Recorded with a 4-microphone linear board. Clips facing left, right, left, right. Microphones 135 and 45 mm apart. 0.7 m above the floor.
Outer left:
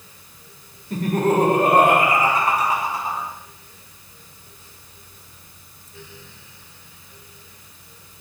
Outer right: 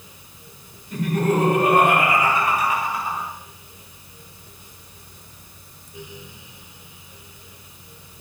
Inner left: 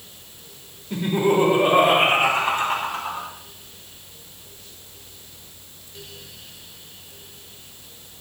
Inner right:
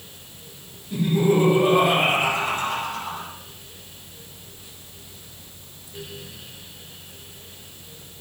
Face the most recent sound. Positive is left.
turn(degrees=35)  # may be behind; listen again after turning